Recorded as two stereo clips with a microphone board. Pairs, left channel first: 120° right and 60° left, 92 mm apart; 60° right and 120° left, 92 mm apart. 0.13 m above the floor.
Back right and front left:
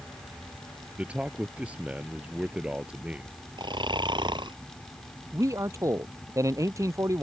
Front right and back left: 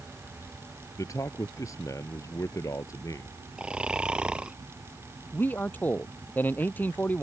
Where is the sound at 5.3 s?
10° left.